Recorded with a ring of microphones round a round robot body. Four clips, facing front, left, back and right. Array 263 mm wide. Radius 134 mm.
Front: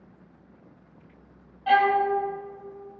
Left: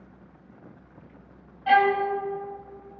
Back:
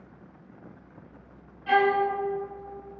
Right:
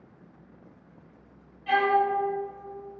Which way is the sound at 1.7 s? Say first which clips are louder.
Left 3 dB, front 2 dB; 50° left.